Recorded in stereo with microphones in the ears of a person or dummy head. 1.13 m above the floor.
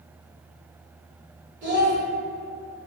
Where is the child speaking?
45° right (ahead or behind), 1.7 m.